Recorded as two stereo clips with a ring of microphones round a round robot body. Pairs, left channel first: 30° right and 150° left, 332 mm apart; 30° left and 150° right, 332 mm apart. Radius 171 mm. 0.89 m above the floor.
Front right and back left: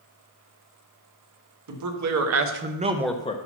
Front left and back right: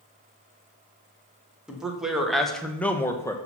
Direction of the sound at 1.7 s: 125° left.